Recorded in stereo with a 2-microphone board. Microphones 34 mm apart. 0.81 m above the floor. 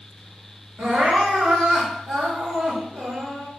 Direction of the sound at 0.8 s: 55° right (ahead or behind).